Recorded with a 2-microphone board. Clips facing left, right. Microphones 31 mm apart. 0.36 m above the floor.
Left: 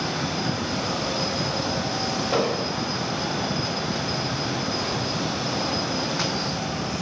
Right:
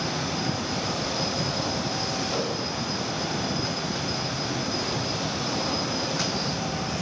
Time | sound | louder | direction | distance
2.3 | an explosion | left 5 dB | 35° left (ahead or behind) | 1.7 m